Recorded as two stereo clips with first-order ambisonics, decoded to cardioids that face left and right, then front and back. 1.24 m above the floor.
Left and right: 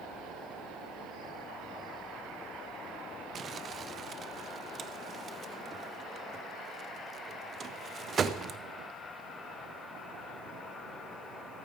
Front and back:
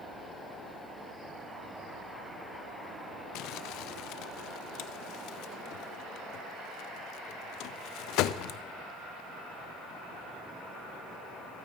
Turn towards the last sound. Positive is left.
turn(degrees=-25)